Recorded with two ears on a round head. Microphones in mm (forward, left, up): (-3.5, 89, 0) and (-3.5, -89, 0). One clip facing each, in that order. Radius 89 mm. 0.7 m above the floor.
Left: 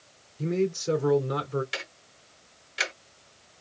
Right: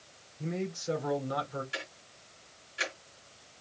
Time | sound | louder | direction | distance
0.4 | a man speaking | left 9 dB | 60° left (ahead or behind) | 2.5 m
1.7 | ticking | left 2 dB | 80° left | 1.9 m